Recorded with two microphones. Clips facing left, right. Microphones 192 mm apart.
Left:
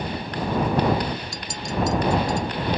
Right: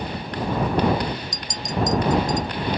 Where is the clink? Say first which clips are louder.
Even; 20° right (ahead or behind).